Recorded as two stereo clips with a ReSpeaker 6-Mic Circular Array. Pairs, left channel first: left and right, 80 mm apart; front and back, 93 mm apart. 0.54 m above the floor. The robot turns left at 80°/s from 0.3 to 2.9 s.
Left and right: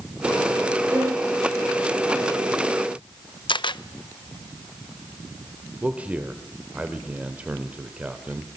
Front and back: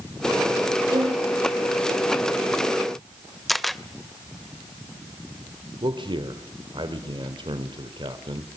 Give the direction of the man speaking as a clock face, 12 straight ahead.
5 o'clock.